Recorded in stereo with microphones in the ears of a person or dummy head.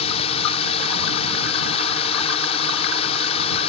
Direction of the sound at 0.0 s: 35° left (ahead or behind).